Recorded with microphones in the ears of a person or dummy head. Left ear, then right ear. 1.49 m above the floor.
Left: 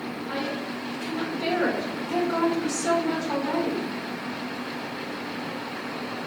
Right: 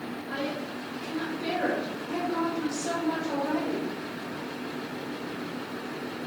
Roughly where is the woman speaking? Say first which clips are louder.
Left 2 dB; left.